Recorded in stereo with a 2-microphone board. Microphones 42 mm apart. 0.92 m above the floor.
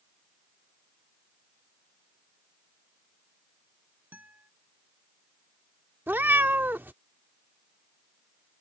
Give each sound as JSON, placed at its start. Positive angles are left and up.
{"t": 4.1, "sound": "a guitar", "side_deg": -40}
{"t": 6.1, "sound": "a cat meowing", "side_deg": -55}